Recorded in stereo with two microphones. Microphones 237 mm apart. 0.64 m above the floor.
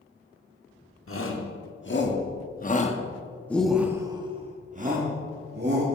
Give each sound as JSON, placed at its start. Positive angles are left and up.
{"t": 1.1, "sound": "a shout", "side_deg": 60, "distance_m": 1.6}